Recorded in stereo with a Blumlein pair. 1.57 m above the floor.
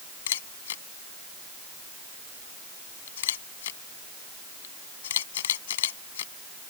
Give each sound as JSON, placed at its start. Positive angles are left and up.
{"t": 0.3, "sound": "a camera shutter", "azimuth_deg": 60}